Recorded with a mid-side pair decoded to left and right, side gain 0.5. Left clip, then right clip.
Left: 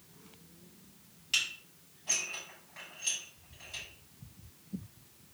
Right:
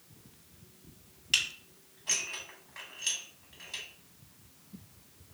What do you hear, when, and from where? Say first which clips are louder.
1.3 s dishes clattering: right 2 dB; 35° right, 4 m